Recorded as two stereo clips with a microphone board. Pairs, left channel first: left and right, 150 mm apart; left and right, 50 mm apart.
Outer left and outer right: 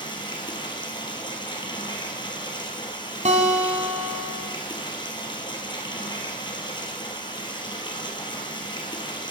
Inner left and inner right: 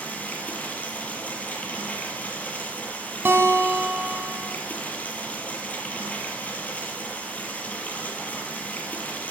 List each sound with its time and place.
0.0 s running water: 30° left (ahead or behind), 1.9 m
3.2 s a guitar: 50° right (ahead or behind), 1.7 m